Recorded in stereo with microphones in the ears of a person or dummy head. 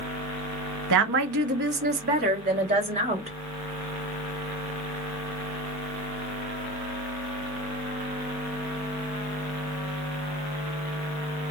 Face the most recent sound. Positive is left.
turn(degrees=-40)  # may be behind; listen again after turning